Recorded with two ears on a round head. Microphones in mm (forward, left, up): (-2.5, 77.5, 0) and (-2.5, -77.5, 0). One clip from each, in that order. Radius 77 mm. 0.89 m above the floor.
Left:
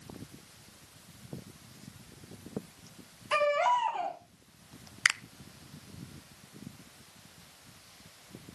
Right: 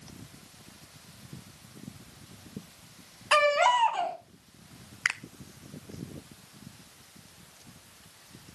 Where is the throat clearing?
I don't hear throat clearing.